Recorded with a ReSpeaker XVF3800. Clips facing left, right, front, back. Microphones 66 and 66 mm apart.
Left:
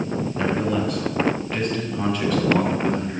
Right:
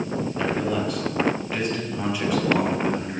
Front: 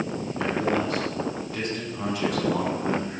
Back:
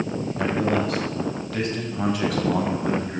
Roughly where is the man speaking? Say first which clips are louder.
Left 2 dB, back 2 dB; behind.